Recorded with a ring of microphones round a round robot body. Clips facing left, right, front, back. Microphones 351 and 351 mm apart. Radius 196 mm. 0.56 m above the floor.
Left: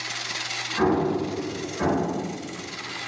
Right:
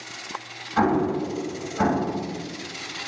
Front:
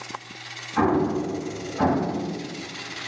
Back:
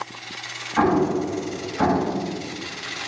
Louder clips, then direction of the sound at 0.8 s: Even, back 2 dB; 85° right.